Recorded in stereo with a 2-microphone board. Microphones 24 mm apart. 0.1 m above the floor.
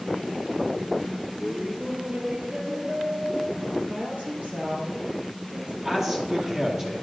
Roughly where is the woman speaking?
Right.